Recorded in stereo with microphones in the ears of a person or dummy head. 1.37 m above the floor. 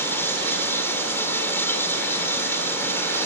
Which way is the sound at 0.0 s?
10° left (ahead or behind).